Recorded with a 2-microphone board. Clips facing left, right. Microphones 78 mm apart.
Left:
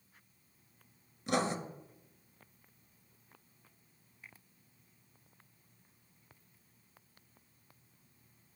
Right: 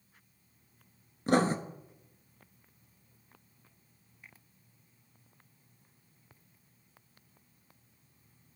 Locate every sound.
1.3 s writing: 40° right (ahead or behind), 0.7 m